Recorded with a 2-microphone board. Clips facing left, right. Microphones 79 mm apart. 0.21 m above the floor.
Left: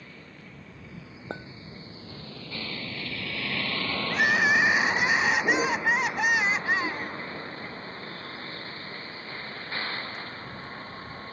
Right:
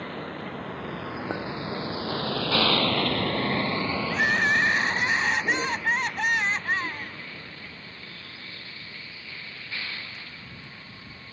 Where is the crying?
5° left (ahead or behind).